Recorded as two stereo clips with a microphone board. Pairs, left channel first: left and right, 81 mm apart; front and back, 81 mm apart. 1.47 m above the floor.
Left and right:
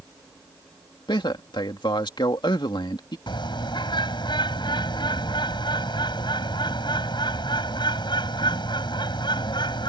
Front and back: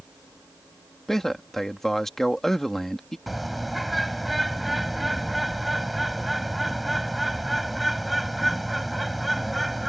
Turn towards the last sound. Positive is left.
turn(degrees=90)